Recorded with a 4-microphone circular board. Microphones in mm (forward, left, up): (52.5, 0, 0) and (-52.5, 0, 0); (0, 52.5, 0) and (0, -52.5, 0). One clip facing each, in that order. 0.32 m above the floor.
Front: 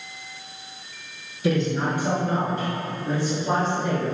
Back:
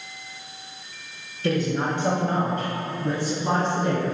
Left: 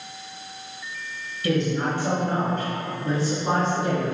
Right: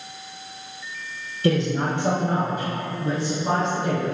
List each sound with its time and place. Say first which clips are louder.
1.4 s a man speaking: front 1 dB, right 2 dB; 80° right, 1.1 m; by 4.1 s 175° left, 3.5 m